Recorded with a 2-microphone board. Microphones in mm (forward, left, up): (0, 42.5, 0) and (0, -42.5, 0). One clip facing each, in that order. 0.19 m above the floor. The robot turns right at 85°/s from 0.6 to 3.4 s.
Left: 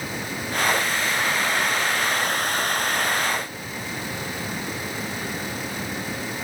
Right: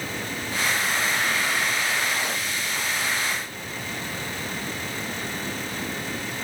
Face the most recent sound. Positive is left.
No sound to turn to.